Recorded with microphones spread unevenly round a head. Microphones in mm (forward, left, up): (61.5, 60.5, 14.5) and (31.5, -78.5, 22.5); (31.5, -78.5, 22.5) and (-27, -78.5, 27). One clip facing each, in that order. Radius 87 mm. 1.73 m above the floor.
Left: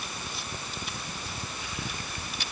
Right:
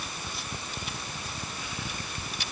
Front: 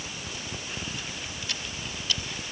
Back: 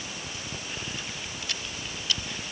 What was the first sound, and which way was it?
Only background noise.